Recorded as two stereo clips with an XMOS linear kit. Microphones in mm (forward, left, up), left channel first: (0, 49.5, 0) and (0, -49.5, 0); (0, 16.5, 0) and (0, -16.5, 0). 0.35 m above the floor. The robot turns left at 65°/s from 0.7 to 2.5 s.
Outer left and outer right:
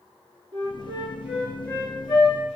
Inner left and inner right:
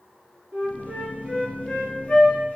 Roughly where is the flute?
Behind right.